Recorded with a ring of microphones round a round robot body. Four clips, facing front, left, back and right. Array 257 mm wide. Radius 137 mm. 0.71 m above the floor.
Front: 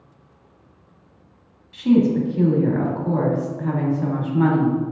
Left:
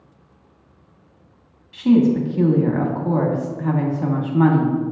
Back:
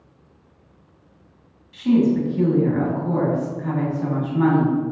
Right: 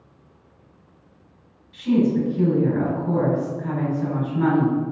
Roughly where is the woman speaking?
Left.